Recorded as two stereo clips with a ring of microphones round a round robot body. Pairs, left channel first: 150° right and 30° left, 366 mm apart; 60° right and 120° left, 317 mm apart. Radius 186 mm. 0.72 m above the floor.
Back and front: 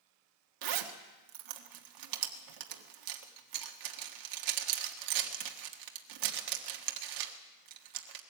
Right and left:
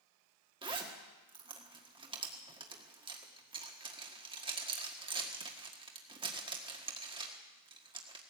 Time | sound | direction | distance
0.6 | a zipper | 45° left | 1.6 m